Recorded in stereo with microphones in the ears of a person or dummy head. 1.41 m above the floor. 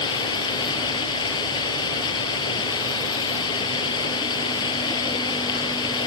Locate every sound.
0.0 s running water: 30° left (ahead or behind)